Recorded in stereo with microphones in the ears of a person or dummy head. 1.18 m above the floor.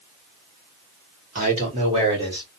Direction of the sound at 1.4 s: 45° right (ahead or behind).